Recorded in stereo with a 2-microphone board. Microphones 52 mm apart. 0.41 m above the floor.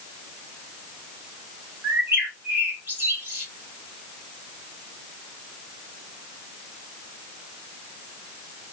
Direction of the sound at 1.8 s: 35° right (ahead or behind).